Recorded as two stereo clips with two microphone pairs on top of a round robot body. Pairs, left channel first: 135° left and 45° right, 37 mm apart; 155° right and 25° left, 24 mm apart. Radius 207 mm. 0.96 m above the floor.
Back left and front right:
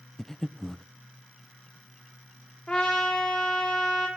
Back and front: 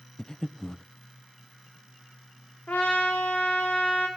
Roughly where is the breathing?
Behind.